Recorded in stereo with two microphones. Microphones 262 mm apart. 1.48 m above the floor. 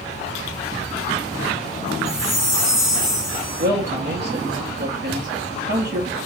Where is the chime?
45° left (ahead or behind), 1.9 m.